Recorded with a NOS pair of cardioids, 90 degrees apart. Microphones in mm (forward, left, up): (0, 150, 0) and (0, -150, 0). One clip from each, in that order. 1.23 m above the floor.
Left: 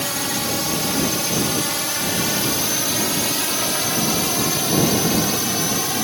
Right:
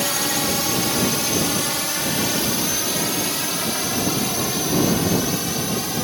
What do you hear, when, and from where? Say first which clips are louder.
0.0 s a drone: right 2 dB; 15° right; by 6.0 s 30° left